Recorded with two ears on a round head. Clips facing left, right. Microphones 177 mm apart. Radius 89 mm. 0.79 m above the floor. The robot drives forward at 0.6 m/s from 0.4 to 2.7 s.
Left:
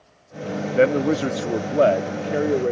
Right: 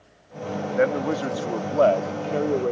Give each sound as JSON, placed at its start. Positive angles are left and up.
{"t": 0.8, "sound": "a man speaking", "side_deg": 40}